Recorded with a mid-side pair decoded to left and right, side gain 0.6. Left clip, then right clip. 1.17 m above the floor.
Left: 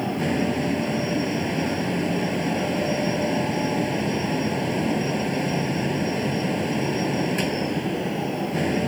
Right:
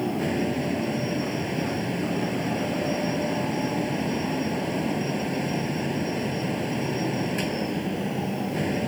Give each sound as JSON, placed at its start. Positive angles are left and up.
{"t": 0.0, "sound": "a fan", "azimuth_deg": 20}